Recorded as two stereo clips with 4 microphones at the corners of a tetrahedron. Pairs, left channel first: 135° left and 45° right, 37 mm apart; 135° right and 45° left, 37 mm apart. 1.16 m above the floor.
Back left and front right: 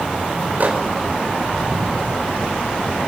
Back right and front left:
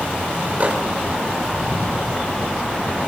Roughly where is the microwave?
Ahead.